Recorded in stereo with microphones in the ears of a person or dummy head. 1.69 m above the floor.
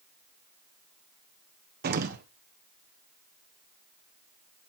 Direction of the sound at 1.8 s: 55° right (ahead or behind).